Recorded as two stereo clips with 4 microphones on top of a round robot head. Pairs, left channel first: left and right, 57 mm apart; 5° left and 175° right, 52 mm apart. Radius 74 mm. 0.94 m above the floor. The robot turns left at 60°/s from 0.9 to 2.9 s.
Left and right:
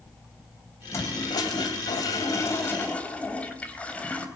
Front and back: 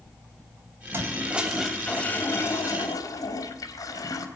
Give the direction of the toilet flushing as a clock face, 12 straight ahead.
7 o'clock.